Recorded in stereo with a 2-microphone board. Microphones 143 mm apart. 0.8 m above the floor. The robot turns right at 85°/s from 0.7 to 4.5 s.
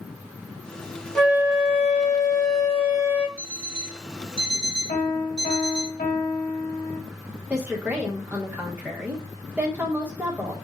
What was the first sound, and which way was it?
A flute, 175° left.